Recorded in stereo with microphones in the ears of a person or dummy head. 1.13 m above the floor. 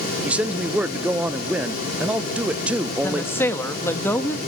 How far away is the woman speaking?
About 1.4 m.